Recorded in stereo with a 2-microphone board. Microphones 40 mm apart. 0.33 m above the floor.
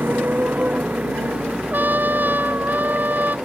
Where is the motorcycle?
50° right (ahead or behind); by 3.5 s 20° right (ahead or behind).